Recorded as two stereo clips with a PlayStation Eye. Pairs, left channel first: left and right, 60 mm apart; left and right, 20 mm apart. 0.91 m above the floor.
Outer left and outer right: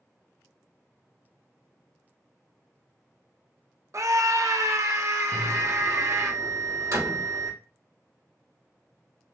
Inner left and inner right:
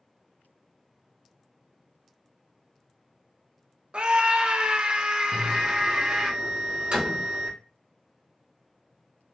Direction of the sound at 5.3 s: 70° right (ahead or behind).